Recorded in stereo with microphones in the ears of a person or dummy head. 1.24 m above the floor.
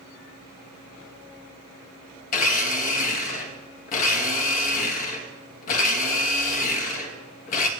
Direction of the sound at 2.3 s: 45° left (ahead or behind).